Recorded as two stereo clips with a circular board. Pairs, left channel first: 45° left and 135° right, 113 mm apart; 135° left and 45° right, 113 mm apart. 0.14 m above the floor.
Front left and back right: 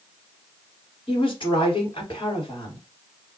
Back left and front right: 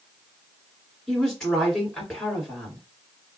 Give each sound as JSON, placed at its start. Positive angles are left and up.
{"t": 1.1, "sound": "a woman speaking", "azimuth_deg": 50, "distance_m": 1.7}